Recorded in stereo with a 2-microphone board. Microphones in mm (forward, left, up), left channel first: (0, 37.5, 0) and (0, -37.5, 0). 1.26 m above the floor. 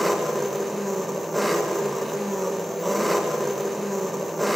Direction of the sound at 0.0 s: Centre (ahead or behind).